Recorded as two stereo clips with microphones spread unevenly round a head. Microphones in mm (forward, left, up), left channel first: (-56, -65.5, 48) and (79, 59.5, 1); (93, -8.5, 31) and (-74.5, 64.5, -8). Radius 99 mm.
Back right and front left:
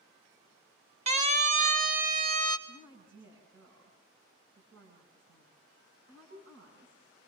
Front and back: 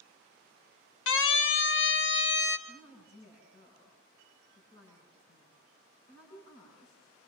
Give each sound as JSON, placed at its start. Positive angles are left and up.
{"t": 1.1, "sound": "a siren", "azimuth_deg": -5, "distance_m": 2.5}
{"t": 2.7, "sound": "a woman speaking", "azimuth_deg": 25, "distance_m": 9.5}